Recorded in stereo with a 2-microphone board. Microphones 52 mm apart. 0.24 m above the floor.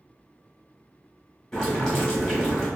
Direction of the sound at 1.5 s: 10° left (ahead or behind).